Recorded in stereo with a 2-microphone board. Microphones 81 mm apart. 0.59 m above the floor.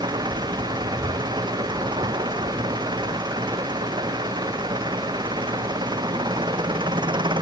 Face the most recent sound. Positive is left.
turn(degrees=-90)